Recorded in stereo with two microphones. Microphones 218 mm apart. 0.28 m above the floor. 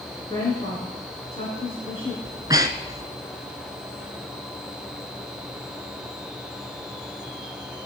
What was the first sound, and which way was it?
A woman speaking, 30° left (ahead or behind).